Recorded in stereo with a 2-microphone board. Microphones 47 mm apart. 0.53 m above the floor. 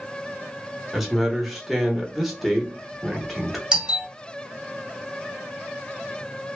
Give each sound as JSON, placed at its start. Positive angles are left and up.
{"t": 0.9, "sound": "a man speaking", "side_deg": -5, "distance_m": 0.9}
{"t": 3.7, "sound": "a doorbell", "side_deg": -20, "distance_m": 1.7}